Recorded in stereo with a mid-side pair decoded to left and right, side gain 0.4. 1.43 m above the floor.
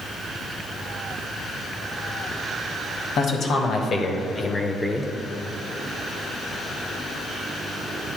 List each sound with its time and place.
3.2 s a man speaking: 65° left, 1.6 m; by 5.1 s 10° left, 0.9 m